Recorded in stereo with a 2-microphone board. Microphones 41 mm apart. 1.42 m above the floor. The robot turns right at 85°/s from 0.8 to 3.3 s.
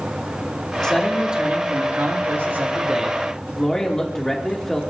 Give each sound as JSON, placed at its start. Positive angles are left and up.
{"t": 0.8, "sound": "a man speaking", "azimuth_deg": 160, "distance_m": 3.0}